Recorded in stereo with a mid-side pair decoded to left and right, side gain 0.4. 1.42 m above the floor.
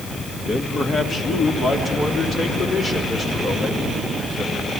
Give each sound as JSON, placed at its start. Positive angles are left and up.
{"t": 0.5, "sound": "a man speaking", "azimuth_deg": 45, "distance_m": 2.5}